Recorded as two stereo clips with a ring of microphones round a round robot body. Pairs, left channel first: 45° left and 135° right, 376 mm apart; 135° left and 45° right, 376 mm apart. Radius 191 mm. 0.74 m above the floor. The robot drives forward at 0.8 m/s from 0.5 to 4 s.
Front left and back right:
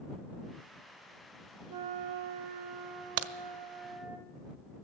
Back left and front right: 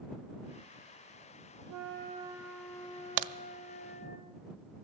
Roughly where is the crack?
Right.